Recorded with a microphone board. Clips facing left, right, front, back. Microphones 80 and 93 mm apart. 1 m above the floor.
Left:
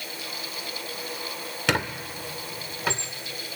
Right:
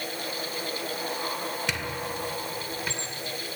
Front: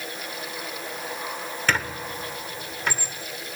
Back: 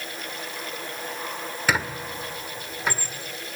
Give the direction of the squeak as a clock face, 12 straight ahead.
9 o'clock.